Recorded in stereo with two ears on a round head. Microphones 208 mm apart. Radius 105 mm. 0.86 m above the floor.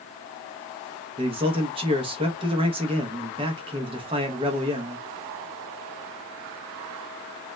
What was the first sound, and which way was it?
A man speaking, 25° right (ahead or behind).